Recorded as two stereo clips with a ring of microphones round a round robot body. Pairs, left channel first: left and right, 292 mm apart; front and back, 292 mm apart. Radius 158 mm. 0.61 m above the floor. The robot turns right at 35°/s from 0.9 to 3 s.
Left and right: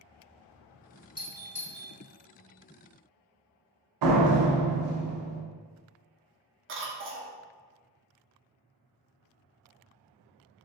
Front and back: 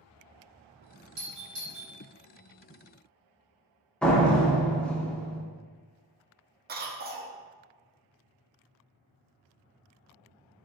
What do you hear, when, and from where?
1.2 s a doorbell: 155° left, 1.9 m; by 1.9 s straight behind, 1.9 m
4.0 s a door slam: 85° right, 0.7 m
6.7 s a cough: 130° right, 0.9 m